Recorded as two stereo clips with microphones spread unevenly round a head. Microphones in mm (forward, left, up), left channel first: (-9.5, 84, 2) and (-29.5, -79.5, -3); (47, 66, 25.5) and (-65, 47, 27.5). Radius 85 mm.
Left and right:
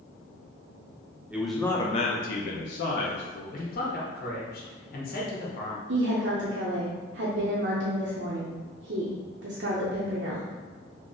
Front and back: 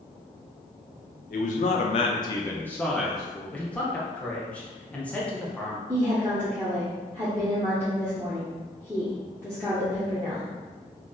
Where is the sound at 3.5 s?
85° left, 1.0 m.